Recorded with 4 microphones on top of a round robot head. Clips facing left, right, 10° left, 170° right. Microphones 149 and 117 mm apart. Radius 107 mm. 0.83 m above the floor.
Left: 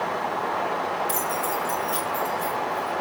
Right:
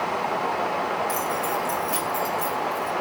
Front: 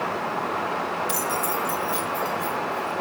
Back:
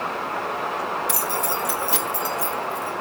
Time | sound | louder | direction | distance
1.1 | keys jangling | right 1 dB, even | 150° left | 0.9 m